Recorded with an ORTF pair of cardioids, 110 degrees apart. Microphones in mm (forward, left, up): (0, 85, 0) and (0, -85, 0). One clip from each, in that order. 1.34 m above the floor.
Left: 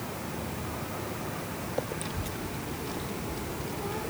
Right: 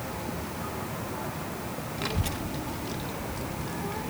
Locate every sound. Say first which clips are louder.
2.0 s a child speaking: right 4 dB; 55° right; by 4.1 s 5° right